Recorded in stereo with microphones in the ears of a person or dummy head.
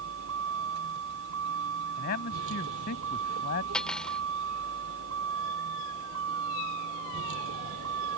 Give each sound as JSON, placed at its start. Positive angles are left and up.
{"t": 0.0, "sound": "a vehicle", "side_deg": -80}
{"t": 2.0, "sound": "a man speaking", "side_deg": 55}
{"t": 3.7, "sound": "cutlery clinking", "side_deg": 5}